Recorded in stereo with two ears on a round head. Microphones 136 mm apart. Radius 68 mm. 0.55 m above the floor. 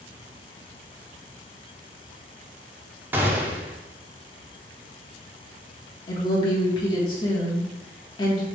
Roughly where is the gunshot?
Centre.